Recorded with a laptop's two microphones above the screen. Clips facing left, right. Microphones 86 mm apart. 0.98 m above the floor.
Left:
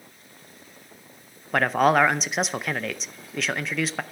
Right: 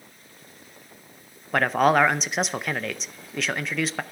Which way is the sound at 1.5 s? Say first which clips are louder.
Even; centre (ahead or behind).